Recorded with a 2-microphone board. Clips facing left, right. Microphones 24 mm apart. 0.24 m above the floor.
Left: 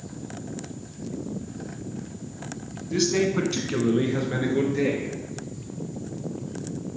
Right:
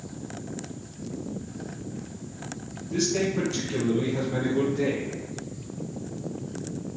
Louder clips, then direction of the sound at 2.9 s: Left 3 dB; 35° left (ahead or behind).